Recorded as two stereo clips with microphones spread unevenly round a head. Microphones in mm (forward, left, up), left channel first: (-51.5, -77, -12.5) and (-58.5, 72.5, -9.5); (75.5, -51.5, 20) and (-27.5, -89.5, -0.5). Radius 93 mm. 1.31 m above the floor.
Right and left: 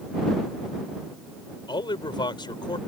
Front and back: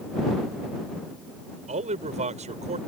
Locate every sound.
1.7 s a man speaking: 145° right